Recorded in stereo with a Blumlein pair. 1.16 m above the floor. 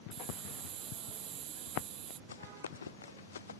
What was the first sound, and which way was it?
A hiss, 30° right.